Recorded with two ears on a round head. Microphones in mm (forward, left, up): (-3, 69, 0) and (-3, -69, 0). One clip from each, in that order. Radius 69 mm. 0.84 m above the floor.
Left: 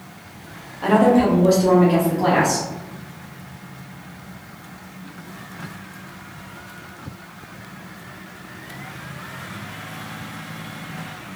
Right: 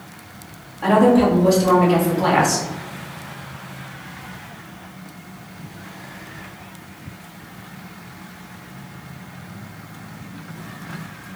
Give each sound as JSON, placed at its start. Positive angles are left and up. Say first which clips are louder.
{"t": 0.8, "sound": "a woman speaking", "louder": "right 1 dB", "side_deg": 0, "distance_m": 1.6}